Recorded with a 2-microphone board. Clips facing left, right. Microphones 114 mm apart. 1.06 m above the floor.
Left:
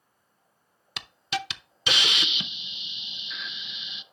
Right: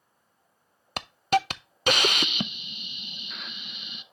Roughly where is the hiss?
Right.